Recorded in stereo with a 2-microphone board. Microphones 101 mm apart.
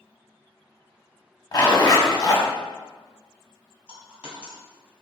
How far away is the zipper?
About 0.7 m.